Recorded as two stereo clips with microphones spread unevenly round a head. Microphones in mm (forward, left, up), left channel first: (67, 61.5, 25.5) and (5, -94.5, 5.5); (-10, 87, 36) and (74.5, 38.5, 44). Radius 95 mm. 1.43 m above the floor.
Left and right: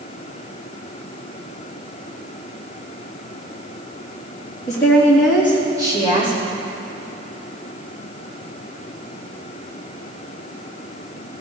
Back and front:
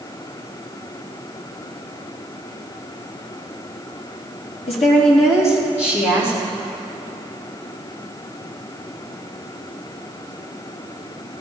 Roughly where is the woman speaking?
Behind left.